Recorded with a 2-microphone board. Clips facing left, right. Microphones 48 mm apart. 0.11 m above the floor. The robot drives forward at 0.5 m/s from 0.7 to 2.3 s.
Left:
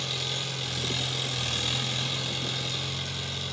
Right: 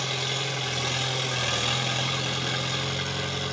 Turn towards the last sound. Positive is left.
turn(degrees=-40)  # may be behind; listen again after turning